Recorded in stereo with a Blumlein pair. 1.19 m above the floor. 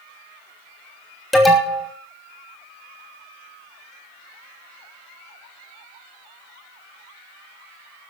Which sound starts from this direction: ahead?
An alarm, at 1.3 s.